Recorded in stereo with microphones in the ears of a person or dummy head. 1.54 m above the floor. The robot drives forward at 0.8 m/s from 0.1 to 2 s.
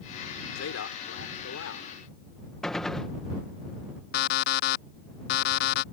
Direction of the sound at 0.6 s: 80° left.